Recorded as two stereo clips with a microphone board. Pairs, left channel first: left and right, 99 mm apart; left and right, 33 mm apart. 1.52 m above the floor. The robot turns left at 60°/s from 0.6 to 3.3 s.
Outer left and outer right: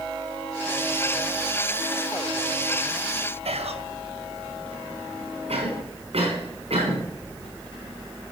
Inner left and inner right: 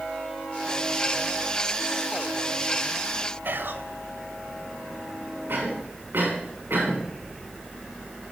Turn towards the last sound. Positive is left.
turn(degrees=-75)  # may be behind; listen again after turning